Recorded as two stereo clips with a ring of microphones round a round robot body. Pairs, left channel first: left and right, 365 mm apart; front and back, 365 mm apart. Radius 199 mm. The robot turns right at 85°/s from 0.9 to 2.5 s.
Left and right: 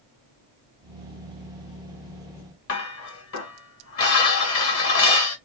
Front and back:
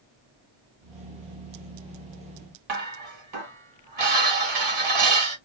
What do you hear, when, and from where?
2.7 s dishes clattering: 140° left, 1.9 m